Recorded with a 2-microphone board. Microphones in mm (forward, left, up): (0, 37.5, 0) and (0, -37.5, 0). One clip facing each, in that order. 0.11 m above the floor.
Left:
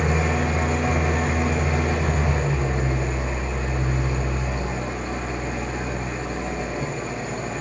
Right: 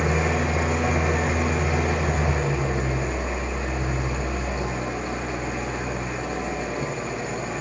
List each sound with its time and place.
0.0 s an engine running: 5° right (ahead or behind), 1.7 m